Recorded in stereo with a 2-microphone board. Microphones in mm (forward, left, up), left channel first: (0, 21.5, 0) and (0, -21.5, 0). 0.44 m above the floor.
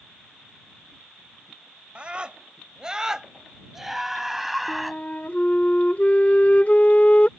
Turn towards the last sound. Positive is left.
turn(degrees=35)  # may be behind; listen again after turning